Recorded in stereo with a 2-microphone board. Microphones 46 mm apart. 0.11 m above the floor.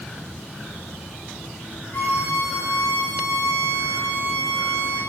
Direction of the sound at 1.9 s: 80° left.